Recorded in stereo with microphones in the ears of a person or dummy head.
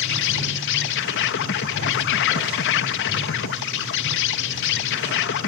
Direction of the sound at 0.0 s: 60° left (ahead or behind).